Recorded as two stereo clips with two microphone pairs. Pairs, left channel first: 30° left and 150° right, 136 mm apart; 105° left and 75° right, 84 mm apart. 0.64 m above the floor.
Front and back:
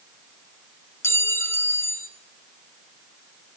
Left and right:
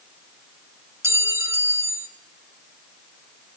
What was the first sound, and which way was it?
A clink, 40° right.